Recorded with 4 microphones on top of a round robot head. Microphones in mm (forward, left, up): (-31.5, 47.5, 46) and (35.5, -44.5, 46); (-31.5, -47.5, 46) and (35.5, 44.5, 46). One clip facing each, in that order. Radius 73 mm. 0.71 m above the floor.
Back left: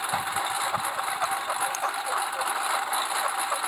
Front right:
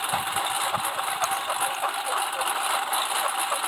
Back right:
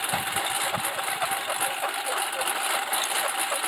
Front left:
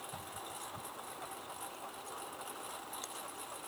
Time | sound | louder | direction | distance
0.0 | a lawn mower | front right 1 dB, back right 17 dB | 140° right | ?